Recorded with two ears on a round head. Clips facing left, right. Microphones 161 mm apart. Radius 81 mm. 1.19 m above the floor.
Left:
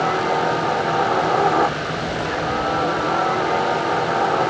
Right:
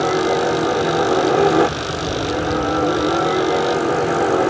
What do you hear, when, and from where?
0.0 s a helicopter: 30° right (ahead or behind)